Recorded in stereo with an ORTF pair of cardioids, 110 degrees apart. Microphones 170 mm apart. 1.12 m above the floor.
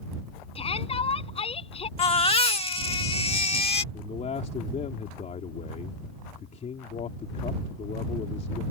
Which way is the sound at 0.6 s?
30° left.